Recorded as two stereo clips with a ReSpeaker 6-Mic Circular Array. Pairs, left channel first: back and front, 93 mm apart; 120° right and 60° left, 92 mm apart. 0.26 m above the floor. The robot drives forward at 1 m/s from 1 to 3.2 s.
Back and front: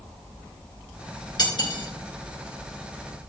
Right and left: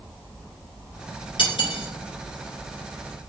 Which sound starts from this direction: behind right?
Cutlery clinking, at 1.4 s.